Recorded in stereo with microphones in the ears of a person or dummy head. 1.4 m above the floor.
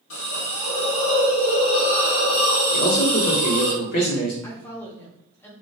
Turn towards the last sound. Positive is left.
turn(degrees=15)  # may be behind; listen again after turning